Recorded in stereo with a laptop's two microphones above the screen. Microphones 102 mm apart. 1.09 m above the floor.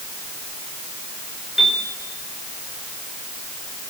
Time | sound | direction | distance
1.6 | a piano | 5° right (ahead or behind) | 5 m